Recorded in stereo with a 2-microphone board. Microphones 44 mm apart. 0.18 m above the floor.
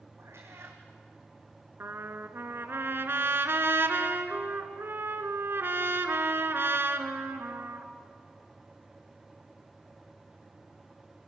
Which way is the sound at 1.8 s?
60° right (ahead or behind).